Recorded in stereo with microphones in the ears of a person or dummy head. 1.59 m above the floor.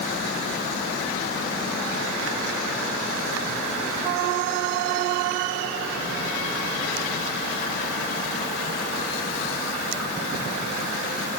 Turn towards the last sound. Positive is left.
No sound to turn to.